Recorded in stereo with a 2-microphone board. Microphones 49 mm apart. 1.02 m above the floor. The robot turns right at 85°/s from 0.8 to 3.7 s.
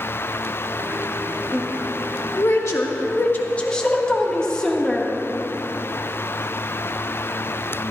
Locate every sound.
1.5 s a woman speaking: 25° right (ahead or behind), 1.8 m; by 5.1 s 20° left (ahead or behind), 1.8 m